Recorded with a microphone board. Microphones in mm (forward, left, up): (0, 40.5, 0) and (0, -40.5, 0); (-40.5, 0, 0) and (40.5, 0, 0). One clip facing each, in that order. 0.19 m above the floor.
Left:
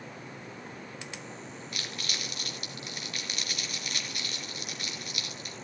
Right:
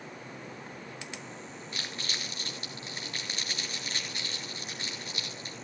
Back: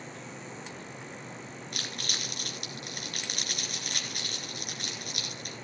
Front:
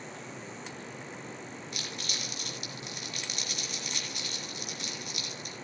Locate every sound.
1.7 s crumpling: 150° right, 3.5 m